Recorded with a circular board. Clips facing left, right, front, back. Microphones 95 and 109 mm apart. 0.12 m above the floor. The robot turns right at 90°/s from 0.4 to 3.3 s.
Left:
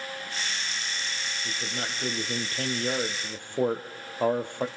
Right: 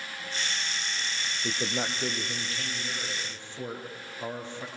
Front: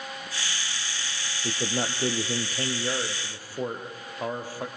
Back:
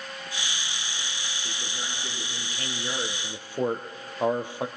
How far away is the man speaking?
About 3 m.